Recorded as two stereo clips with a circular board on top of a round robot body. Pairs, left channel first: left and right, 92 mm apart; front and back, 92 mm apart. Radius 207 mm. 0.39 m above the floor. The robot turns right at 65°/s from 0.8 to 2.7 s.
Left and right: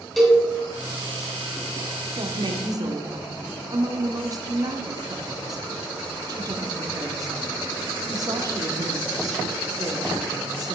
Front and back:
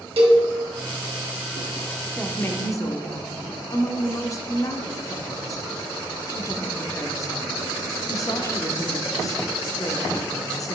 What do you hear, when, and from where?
0.2 s a cowbell: straight behind, 2.5 m
2.2 s a woman speaking: 85° right, 1.2 m; by 10.8 s 50° right, 1.2 m